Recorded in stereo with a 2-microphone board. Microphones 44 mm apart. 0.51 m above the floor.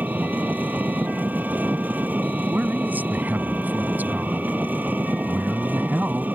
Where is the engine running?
40° right (ahead or behind).